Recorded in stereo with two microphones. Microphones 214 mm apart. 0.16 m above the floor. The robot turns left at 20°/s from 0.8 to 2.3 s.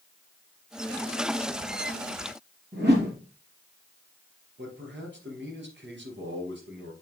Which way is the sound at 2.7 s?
50° right (ahead or behind).